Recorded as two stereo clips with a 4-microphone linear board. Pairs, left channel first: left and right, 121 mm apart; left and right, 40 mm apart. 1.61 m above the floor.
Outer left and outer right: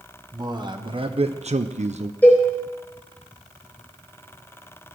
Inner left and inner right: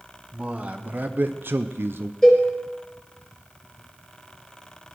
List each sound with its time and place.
0.3 s a man speaking: 35° right (ahead or behind), 1.2 m; by 2.1 s 60° right (ahead or behind), 0.6 m
2.2 s a cowbell: 15° left (ahead or behind), 4 m